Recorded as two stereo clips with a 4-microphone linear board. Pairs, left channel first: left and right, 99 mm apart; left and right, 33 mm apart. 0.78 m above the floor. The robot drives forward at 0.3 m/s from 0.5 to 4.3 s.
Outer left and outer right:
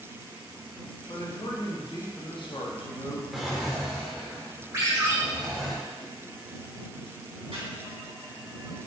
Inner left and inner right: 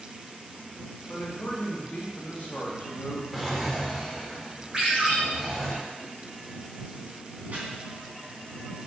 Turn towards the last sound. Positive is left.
turn(degrees=-70)  # may be behind; listen again after turning